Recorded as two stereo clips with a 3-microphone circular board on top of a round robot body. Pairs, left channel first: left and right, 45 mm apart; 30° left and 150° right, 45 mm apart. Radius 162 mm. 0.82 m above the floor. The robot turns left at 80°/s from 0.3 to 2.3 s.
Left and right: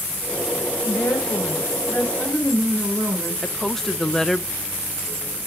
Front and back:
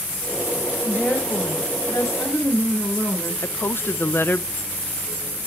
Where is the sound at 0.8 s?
120° left, 3.5 m; by 3.3 s straight ahead, 3.5 m.